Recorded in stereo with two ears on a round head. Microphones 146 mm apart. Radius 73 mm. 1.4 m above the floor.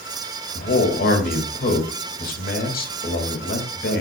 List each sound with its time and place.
0.6 s a man speaking: 60° left (ahead or behind), 2 m